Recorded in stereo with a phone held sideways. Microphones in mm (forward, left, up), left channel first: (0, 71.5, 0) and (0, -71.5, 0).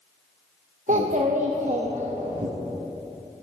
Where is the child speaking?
60° right (ahead or behind), 0.6 m.